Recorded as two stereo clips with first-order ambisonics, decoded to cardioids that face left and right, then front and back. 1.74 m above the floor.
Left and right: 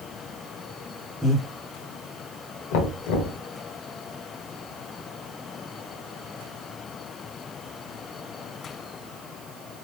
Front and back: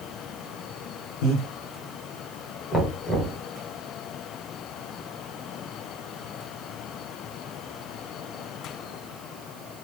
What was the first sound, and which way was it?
Breathing, 5° left.